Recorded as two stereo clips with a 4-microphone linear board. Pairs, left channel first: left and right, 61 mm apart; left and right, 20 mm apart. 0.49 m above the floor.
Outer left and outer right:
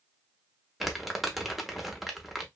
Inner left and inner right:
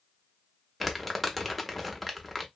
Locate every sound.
0.8 s crumpling: centre (ahead or behind), 0.6 m